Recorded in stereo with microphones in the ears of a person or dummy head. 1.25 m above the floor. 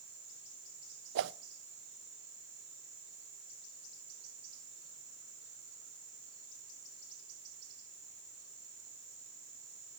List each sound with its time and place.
1.1 s a whoosh: 65° right (ahead or behind), 0.7 m